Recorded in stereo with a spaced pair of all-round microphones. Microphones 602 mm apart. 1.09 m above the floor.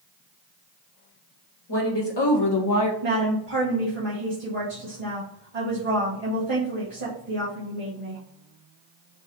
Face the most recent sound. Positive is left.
turn(degrees=-65)  # may be behind; listen again after turning